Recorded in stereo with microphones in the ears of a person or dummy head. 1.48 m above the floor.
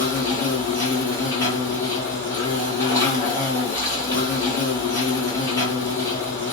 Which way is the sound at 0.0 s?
20° left (ahead or behind).